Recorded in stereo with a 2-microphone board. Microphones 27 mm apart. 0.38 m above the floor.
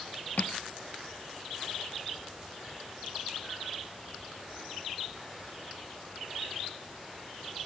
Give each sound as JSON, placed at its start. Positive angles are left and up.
{"t": 0.4, "sound": "crushing", "side_deg": 80}